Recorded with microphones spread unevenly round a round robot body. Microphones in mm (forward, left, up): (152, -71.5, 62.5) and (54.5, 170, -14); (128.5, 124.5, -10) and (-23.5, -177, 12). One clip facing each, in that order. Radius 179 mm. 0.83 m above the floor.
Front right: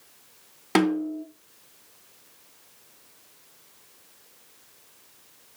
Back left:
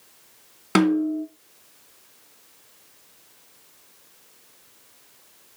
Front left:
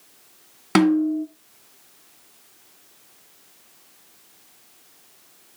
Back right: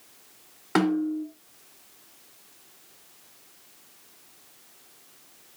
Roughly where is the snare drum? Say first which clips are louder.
Back left 4 dB, front left 6 dB; ahead left.